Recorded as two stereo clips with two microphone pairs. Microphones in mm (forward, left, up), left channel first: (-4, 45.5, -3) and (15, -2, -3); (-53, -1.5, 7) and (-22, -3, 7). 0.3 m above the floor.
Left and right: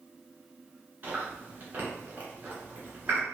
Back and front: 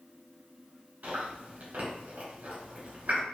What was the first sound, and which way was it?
Chewing, 10° right.